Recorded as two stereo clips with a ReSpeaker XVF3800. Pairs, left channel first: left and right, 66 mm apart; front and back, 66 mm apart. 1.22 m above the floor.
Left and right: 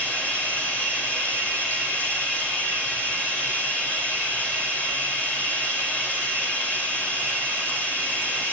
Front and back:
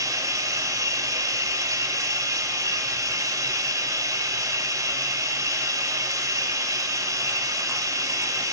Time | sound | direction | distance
0.0 | running water | 155° left | 5.5 m